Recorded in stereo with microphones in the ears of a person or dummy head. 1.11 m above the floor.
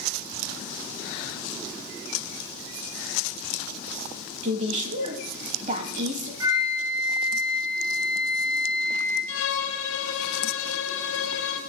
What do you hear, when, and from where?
4.4 s a woman speaking: 40° right (ahead or behind), 1.4 m
6.4 s a flute: 20° right (ahead or behind), 1.9 m
9.3 s a violin: 70° left (ahead or behind), 1.5 m